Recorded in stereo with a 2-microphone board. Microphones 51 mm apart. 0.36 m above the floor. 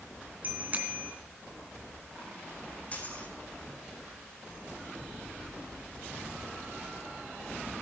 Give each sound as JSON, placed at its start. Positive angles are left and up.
{"t": 0.4, "sound": "a bicycle bell", "side_deg": -35, "distance_m": 2.5}
{"t": 2.9, "sound": "a dropped coin", "side_deg": 30, "distance_m": 4.0}